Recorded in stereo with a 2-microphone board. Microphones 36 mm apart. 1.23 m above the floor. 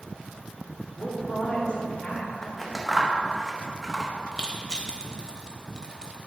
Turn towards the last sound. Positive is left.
turn(degrees=20)  # may be behind; listen again after turning